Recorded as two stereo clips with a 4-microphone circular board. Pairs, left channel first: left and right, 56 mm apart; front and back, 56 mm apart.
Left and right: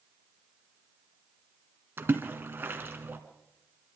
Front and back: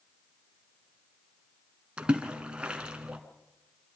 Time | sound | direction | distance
2.0 | a splash | 115° right | 2.5 m